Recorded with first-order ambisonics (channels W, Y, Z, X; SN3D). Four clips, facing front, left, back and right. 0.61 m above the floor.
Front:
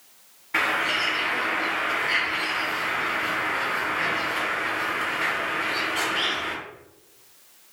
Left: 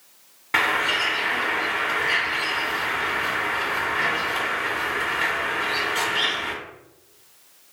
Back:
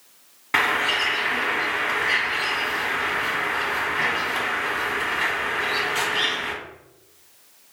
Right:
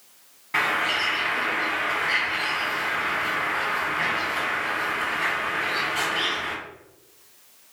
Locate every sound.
0.5 s a bird: 150° left, 0.9 m